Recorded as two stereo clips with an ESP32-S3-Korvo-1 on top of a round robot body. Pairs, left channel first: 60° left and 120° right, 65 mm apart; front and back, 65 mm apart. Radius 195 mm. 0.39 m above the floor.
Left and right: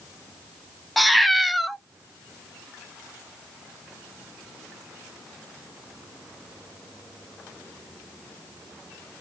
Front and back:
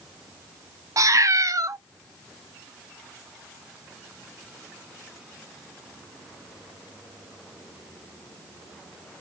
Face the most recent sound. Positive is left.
turn(degrees=150)